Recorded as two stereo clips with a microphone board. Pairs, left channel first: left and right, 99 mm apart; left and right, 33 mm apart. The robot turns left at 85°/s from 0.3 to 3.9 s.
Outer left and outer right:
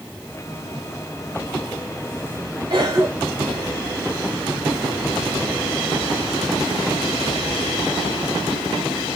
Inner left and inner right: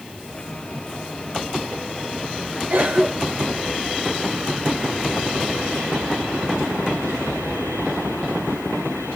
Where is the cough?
50° right (ahead or behind), 1.3 m; by 3.6 s 5° left (ahead or behind), 1.3 m.